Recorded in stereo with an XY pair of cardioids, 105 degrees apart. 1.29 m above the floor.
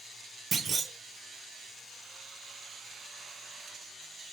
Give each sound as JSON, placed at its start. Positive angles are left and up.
{"t": 0.5, "sound": "a clunk", "azimuth_deg": -40, "distance_m": 0.7}